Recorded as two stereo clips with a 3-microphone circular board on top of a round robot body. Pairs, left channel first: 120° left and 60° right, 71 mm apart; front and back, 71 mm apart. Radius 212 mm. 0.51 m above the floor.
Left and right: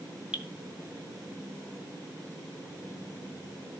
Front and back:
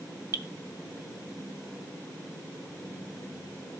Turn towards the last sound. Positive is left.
turn(degrees=-135)